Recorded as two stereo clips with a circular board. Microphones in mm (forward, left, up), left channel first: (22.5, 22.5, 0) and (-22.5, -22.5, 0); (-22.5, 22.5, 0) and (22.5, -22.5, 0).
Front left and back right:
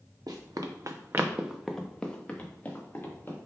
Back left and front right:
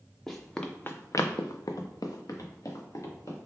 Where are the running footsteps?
140° right, 0.8 m; by 3.4 s 100° left, 1.5 m.